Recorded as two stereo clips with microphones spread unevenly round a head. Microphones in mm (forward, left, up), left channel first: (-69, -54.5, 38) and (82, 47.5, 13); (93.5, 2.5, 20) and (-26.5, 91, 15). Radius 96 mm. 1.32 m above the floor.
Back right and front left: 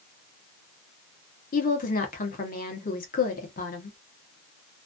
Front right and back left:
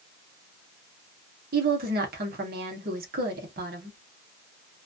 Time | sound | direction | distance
1.5 | a woman speaking | 165° left | 1.1 m